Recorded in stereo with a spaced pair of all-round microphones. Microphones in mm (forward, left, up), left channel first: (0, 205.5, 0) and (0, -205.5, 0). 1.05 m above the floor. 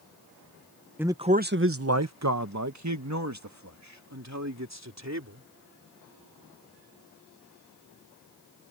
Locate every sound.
1.0 s a man speaking: 5° right (ahead or behind); by 5.4 s 40° right (ahead or behind)